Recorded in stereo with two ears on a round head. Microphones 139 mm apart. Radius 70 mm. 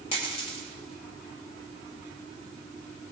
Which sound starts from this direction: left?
A dropped coin, at 0.1 s.